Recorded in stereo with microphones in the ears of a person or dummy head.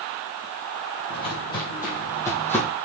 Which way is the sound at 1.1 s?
30° left (ahead or behind).